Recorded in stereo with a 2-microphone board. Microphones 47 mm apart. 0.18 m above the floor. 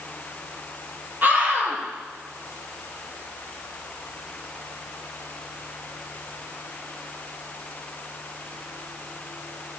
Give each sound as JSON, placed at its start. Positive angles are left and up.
{"t": 1.2, "sound": "a scream", "side_deg": -40, "distance_m": 4.5}